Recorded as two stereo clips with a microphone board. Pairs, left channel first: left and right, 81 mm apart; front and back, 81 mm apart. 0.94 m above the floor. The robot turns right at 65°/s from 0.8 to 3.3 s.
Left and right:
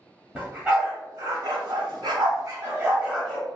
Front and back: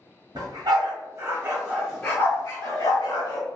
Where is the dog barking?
160° right, 1.3 m; by 3.5 s 5° left, 1.3 m.